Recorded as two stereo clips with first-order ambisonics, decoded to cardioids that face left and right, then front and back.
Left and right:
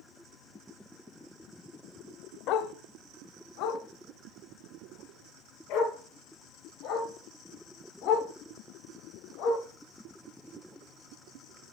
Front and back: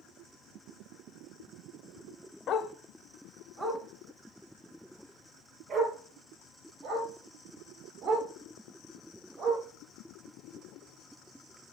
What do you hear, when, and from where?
2.5 s a dog barking: 50° left, 0.5 m; by 9.6 s 115° left, 5.5 m